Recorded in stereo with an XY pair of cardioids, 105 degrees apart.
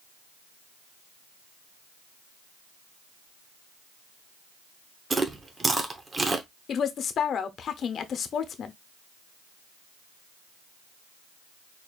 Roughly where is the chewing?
Ahead right.